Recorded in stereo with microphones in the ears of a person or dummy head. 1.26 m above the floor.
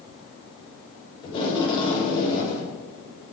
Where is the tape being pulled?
25° left (ahead or behind), 6 m.